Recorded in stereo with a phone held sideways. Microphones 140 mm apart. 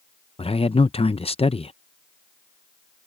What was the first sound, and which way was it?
A man speaking, 45° left (ahead or behind).